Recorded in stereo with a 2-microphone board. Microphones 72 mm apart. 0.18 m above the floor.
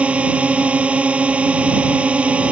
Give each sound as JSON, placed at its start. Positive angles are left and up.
{"t": 0.0, "sound": "a drone", "side_deg": -15}